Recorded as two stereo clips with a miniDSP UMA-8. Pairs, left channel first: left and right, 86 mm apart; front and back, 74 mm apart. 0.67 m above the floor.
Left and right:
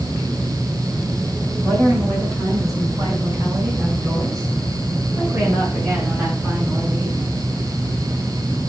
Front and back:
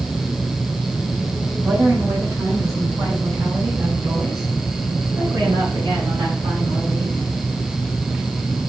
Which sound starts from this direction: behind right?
A woman speaking, at 1.6 s.